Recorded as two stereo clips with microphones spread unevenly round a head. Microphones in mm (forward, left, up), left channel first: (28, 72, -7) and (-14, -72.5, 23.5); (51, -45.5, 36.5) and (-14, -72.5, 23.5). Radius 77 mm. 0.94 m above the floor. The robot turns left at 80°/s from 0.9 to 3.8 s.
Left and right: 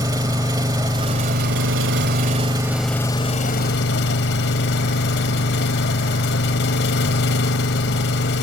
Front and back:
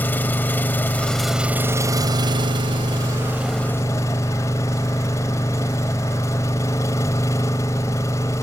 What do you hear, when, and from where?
0.0 s an engine running: 40° right; by 8.4 s 90° left